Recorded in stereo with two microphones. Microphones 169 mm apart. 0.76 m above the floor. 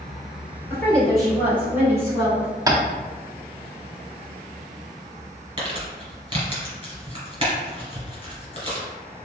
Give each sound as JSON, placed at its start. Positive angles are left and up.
{"t": 0.7, "sound": "a woman speaking", "side_deg": 15, "distance_m": 2.0}
{"t": 2.7, "sound": "tapping", "side_deg": -20, "distance_m": 0.7}
{"t": 5.6, "sound": "crumpling", "side_deg": -30, "distance_m": 2.0}